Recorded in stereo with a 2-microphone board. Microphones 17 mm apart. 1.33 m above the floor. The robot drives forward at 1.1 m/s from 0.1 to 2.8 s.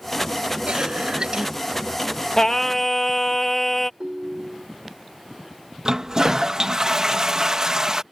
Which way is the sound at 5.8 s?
40° right (ahead or behind).